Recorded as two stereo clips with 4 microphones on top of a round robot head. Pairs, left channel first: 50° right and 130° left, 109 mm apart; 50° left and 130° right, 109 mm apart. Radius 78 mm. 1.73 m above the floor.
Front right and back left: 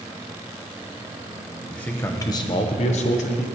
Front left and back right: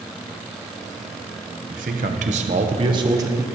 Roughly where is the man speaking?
Behind right.